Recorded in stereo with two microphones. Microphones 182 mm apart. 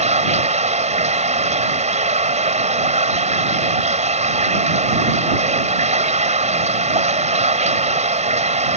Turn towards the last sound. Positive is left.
turn(degrees=-40)  # may be behind; listen again after turning